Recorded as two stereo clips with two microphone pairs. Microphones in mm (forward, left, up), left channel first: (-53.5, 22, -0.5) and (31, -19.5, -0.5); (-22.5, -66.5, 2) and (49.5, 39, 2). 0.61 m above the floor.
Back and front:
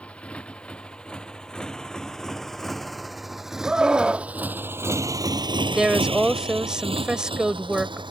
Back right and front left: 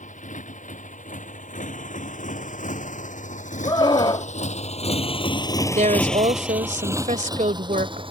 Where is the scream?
105° right.